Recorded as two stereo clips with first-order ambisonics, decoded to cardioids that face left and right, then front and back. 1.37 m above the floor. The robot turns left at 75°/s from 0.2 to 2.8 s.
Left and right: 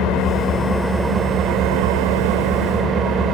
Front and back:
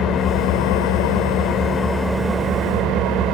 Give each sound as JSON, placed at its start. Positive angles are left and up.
{"t": 0.0, "sound": "an engine running", "azimuth_deg": 50, "distance_m": 3.0}